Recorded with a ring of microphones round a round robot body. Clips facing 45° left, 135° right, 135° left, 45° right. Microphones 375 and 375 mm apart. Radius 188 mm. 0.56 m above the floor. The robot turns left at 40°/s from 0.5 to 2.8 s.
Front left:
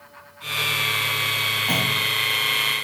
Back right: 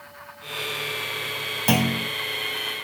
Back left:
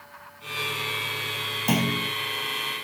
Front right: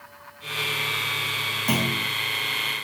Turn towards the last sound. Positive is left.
turn(degrees=170)